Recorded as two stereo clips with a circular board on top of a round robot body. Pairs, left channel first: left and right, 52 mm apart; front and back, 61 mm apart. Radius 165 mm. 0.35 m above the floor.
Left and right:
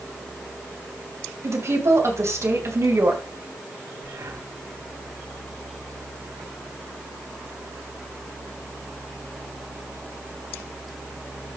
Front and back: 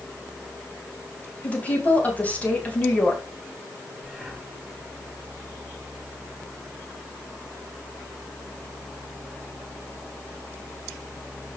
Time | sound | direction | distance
1.4 | a woman speaking | 65° right | 3.5 m
4.0 | breathing | 95° right | 4 m